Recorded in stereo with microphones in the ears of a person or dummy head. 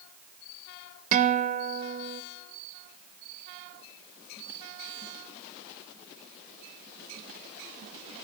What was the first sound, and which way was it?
A guitar, 45° right (ahead or behind).